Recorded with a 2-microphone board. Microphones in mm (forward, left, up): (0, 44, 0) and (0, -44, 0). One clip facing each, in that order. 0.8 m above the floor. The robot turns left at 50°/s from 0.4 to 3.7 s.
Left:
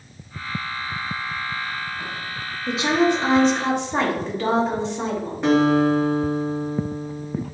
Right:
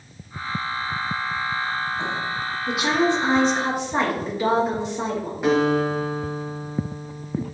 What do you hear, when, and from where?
2.7 s a woman speaking: 40° left, 1.5 m; by 5.3 s 10° right, 1.5 m
5.4 s a guitar: 5° right (ahead or behind), 1.8 m